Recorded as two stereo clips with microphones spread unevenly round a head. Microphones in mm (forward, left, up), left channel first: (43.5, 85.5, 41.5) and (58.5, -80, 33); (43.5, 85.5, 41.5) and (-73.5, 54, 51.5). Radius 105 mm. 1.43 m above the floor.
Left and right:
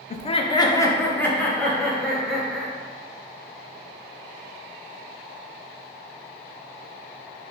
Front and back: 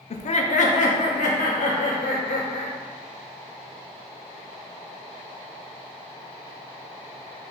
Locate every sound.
0.1 s laughter: 45° left, 0.5 m; by 2.7 s 5° left, 1.8 m